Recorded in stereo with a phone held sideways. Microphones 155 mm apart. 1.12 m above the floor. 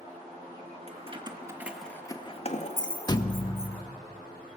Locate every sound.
0.9 s keys jangling: 40° right (ahead or behind), 1.8 m; by 3.7 s 75° left (ahead or behind), 2.5 m
3.1 s a thud: 25° left (ahead or behind), 0.7 m